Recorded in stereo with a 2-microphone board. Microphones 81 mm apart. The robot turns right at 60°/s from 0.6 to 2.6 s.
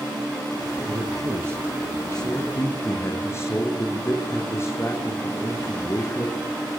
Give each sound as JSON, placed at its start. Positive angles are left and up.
{"t": 0.9, "sound": "a man speaking", "azimuth_deg": -70, "distance_m": 7.0}